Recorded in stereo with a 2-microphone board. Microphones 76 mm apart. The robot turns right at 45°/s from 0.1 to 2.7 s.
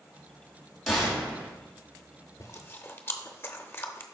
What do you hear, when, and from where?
0.9 s a gunshot: centre (ahead or behind), 2.5 m; by 1.5 s 30° right (ahead or behind), 2.5 m
2.4 s chewing: 45° left (ahead or behind), 0.7 m; by 4.0 s 30° left (ahead or behind), 0.7 m